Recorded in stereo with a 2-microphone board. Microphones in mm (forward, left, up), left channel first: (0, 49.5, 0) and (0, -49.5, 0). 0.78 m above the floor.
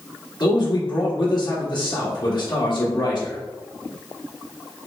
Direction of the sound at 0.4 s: 55° left (ahead or behind).